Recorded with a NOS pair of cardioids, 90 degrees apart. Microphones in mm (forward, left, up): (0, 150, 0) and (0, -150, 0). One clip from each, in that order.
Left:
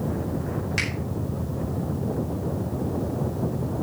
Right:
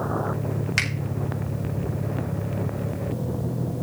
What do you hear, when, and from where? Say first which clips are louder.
0.8 s a finger snap: right 3 dB; 40° right, 4.5 m